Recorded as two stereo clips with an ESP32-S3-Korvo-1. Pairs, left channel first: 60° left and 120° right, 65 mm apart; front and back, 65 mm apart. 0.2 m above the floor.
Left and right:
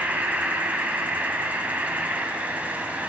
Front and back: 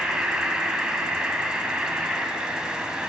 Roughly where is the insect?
Behind right.